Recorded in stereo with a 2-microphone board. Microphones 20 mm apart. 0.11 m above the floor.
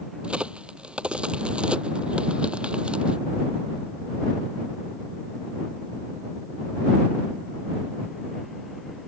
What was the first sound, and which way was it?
A crack, 60° right (ahead or behind).